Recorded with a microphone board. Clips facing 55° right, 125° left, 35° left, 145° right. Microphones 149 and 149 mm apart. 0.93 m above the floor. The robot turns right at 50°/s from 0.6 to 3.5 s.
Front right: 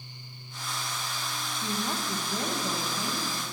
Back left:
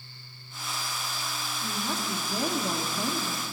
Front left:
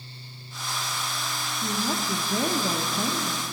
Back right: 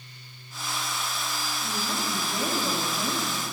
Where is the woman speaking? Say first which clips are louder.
Front right 1 dB, front left 5 dB; 5° left, 1.2 m; by 3.4 s 100° left, 1.2 m.